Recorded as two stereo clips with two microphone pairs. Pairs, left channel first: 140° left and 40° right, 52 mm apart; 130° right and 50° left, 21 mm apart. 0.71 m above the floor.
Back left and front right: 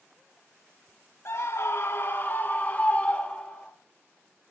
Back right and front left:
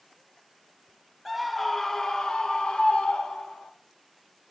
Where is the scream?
135° left, 1.3 m; by 3.7 s 145° right, 2.5 m.